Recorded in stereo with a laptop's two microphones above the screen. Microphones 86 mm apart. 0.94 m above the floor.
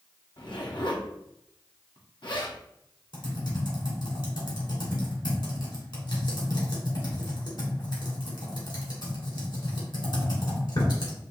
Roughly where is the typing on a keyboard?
Left.